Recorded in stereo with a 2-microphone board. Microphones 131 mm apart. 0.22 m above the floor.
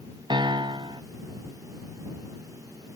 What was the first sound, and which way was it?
A piano, 35° right (ahead or behind).